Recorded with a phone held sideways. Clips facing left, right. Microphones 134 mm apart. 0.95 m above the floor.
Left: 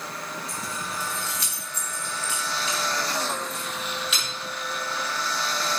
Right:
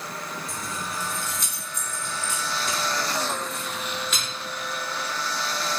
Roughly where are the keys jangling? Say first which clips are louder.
Even; right.